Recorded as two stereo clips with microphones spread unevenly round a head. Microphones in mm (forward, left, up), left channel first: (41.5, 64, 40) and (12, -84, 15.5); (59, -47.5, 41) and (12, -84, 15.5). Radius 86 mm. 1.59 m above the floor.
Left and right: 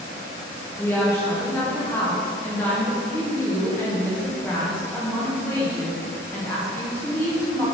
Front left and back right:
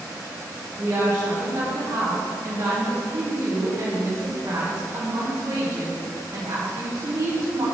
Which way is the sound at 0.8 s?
155° left.